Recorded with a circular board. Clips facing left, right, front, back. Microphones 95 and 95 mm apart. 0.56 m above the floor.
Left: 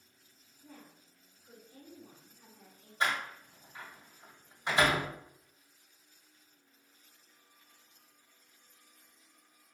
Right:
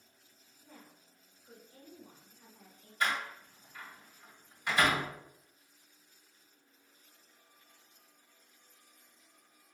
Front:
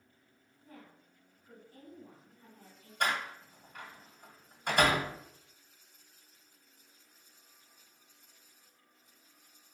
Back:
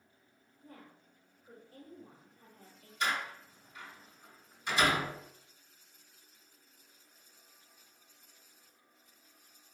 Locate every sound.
0.6 s a woman speaking: 170° left, 1.4 m
3.0 s a door slam: 35° left, 1.4 m